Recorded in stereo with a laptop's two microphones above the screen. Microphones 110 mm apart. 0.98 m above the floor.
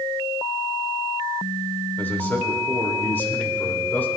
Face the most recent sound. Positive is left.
turn(degrees=20)  # may be behind; listen again after turning